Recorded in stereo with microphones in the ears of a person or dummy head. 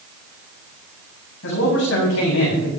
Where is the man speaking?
70° left (ahead or behind), 8 m.